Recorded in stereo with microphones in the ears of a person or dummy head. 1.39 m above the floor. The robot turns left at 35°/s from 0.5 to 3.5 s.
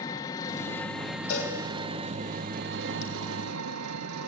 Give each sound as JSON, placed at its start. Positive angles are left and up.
{"t": 0.0, "sound": "an engine running", "azimuth_deg": 20, "distance_m": 1.1}
{"t": 1.3, "sound": "a cowbell", "side_deg": 60, "distance_m": 4.0}